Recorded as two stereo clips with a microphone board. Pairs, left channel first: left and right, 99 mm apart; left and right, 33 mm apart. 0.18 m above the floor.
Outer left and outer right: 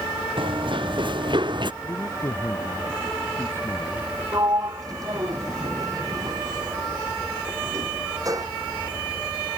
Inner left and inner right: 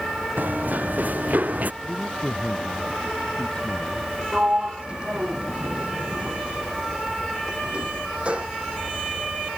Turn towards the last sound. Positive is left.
turn(degrees=-35)  # may be behind; listen again after turning